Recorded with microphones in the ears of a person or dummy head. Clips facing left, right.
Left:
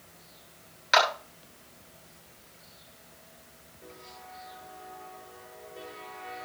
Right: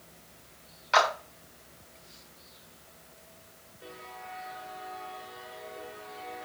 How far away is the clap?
About 6.5 m.